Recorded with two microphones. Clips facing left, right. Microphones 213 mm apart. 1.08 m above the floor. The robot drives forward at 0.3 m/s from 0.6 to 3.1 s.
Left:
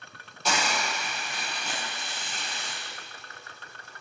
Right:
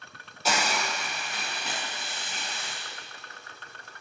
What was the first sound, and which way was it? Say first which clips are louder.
A hiss: right 1 dB; 5° right (ahead or behind).